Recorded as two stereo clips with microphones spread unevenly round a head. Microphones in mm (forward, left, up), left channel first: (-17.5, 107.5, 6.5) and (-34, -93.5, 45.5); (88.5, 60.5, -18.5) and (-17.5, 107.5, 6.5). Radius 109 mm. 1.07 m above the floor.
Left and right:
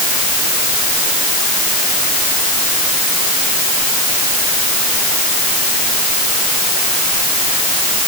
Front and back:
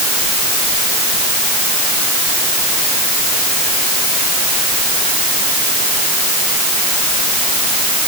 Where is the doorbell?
I don't hear a doorbell.